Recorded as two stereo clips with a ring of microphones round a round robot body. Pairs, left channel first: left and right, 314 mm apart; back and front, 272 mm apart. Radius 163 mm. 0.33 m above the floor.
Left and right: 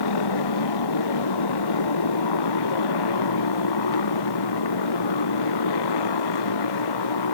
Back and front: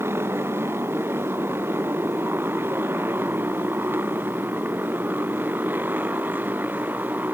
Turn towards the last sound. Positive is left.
turn(degrees=85)